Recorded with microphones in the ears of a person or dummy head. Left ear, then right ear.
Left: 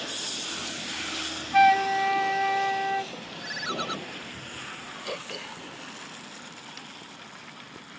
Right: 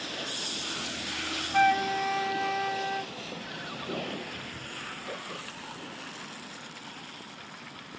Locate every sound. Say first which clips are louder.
1.5 s a flute: left 5 dB; 25° left (ahead or behind)
3.4 s a ringtone: left 7 dB; 75° left (ahead or behind)
5.0 s throat clearing: left 3 dB; 65° left (ahead or behind)